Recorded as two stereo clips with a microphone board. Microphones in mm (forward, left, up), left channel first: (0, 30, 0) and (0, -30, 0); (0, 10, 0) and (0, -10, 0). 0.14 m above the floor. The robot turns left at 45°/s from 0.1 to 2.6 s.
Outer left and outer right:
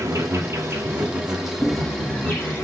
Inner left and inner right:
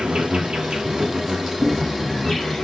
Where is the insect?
110° right, 4 m; by 2.6 s 135° left, 4 m.